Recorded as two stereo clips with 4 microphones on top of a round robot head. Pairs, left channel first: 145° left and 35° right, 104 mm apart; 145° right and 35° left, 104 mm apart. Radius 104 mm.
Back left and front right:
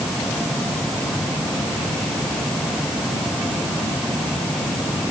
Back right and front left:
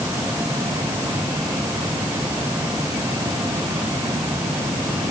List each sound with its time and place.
Only background noise.